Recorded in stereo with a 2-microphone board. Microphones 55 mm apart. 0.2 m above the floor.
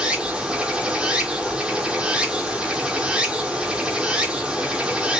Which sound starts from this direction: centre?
Running water, at 0.0 s.